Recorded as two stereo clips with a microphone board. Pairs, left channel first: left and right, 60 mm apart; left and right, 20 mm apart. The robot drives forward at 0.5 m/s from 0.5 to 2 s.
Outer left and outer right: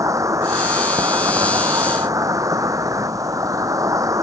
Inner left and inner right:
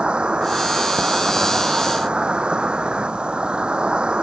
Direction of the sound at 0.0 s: 70° right (ahead or behind).